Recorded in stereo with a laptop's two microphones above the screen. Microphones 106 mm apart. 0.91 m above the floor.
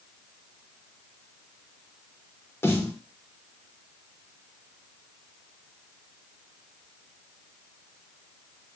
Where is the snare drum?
25° left (ahead or behind), 0.8 m.